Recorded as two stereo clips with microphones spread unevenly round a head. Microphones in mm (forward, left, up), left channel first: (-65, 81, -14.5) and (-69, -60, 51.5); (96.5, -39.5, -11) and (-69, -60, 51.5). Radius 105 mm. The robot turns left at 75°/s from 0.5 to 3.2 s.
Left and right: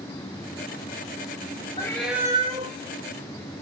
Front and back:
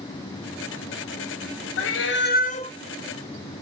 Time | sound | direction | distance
1.8 | a cat meowing | 10° left | 0.8 m